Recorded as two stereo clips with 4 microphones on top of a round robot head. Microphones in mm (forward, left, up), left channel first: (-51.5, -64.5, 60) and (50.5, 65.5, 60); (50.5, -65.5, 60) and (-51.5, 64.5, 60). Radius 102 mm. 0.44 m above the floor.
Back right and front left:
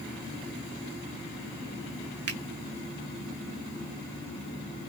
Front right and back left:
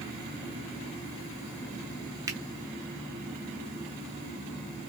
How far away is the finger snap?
About 1.6 m.